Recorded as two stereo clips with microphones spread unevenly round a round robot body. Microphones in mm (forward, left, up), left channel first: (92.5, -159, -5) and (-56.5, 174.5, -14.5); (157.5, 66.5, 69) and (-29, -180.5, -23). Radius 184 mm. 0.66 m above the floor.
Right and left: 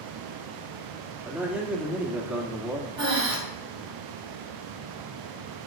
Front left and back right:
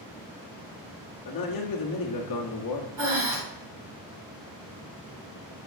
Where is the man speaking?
30° left, 1.6 m.